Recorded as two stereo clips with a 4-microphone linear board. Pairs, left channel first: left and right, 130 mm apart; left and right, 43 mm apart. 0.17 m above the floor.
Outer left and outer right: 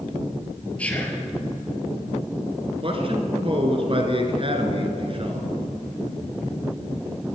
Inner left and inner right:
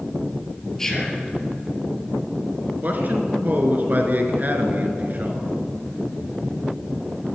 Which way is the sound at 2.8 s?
45° right (ahead or behind).